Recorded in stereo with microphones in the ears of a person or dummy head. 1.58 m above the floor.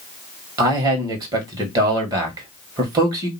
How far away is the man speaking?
About 1.7 m.